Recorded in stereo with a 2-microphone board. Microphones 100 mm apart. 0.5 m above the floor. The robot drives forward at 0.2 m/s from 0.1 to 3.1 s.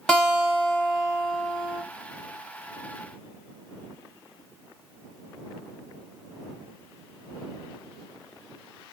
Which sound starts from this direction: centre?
A guitar, at 0.1 s.